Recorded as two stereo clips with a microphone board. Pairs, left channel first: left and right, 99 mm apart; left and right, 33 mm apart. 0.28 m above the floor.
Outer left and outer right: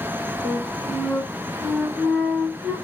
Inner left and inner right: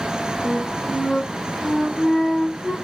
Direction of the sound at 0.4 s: 10° left (ahead or behind).